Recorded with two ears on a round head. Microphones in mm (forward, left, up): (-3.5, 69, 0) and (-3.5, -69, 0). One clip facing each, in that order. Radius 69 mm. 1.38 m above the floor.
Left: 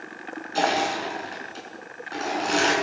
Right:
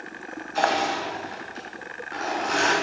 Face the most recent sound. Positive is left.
turn(degrees=35)  # may be behind; listen again after turning